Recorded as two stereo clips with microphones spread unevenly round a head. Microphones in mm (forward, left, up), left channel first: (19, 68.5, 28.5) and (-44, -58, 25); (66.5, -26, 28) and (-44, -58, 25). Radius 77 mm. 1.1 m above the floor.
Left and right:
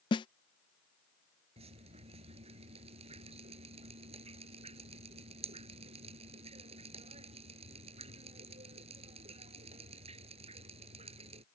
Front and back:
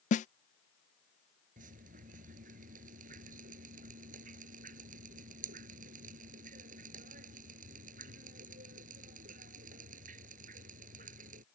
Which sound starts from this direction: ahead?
A snare drum, at 0.1 s.